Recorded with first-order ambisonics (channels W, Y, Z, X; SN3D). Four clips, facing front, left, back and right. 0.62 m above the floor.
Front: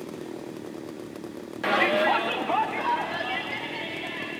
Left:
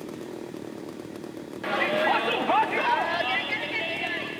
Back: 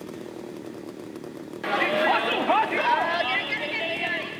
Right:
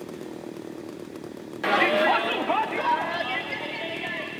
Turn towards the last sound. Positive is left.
turn(degrees=145)